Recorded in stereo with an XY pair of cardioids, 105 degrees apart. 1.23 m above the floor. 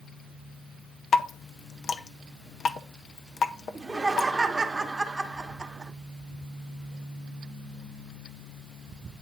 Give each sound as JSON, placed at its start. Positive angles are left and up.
{"t": 1.1, "sound": "dripping", "azimuth_deg": 50, "distance_m": 0.6}
{"t": 3.8, "sound": "laughter", "azimuth_deg": -20, "distance_m": 0.9}